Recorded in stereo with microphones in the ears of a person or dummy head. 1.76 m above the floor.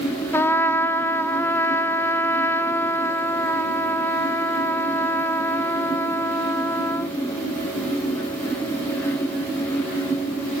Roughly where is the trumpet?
Centre.